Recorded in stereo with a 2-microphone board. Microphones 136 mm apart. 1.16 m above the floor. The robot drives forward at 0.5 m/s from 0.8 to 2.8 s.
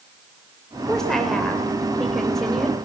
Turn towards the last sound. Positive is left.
turn(degrees=5)  # may be behind; listen again after turning